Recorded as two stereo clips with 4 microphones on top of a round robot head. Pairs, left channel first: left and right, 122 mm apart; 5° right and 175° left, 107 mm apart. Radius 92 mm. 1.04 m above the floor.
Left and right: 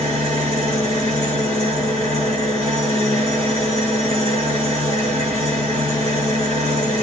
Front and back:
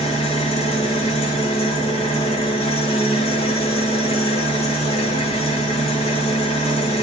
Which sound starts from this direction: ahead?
An engine running, at 0.0 s.